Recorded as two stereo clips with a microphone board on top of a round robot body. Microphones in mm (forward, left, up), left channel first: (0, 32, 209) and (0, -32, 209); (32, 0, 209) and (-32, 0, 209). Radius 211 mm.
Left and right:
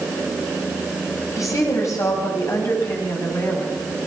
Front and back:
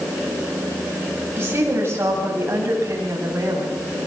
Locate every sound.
1.4 s a woman speaking: 125° left, 7.5 m; by 3.9 s 130° left, 9 m